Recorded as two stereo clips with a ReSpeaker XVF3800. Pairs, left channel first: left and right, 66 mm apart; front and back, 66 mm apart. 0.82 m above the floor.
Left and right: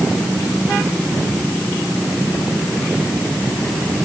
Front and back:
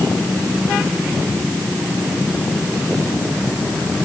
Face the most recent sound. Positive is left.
No sound to turn to.